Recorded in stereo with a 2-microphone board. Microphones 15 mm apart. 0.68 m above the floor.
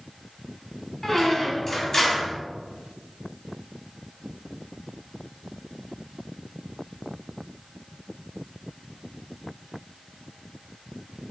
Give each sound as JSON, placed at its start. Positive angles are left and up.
{"t": 1.0, "sound": "a squeak", "side_deg": 30, "distance_m": 2.0}